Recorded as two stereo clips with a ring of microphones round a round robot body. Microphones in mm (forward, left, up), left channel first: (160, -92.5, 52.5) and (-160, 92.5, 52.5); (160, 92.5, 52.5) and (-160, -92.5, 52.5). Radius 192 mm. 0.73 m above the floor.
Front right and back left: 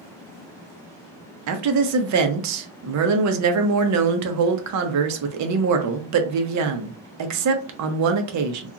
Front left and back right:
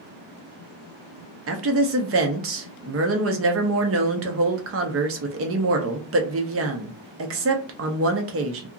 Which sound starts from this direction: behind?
A woman speaking, at 1.5 s.